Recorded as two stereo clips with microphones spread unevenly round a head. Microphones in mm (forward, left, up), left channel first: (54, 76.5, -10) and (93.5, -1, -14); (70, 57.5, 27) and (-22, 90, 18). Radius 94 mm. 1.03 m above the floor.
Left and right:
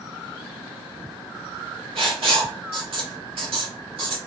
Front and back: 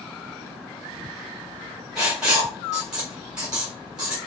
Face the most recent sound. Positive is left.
turn(degrees=-115)